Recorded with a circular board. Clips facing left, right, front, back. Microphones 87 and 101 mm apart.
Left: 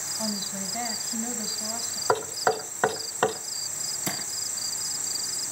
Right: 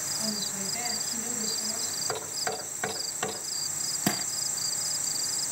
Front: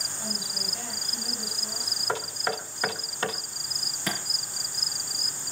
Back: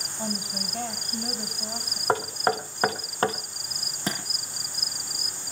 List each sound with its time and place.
0.2 s a woman speaking: 145° left, 3.5 m
2.1 s knocking: 130° left, 1.3 m
4.1 s a thud: 120° right, 4 m